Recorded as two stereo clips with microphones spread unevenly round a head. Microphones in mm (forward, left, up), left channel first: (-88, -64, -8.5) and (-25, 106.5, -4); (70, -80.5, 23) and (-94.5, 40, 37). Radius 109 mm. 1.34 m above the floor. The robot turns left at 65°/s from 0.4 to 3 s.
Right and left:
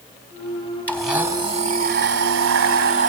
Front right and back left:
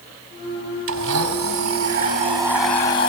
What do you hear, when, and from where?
0.9 s a blender: 170° left, 4.5 m; by 3.1 s 30° left, 4.5 m